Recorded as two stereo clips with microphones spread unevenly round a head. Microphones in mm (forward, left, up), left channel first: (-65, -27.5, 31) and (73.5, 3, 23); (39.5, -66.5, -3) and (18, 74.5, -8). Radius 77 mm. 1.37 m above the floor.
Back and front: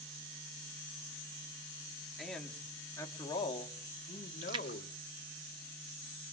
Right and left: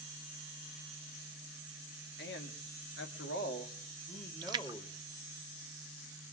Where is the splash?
60° left, 0.5 m.